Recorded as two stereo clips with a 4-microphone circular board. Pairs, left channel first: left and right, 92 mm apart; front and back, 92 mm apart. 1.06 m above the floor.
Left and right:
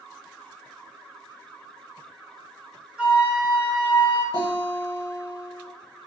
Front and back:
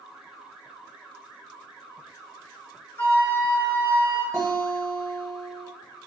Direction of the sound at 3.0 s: 30° right.